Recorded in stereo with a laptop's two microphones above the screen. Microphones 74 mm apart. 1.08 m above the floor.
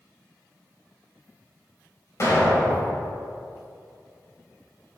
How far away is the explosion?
About 2.5 m.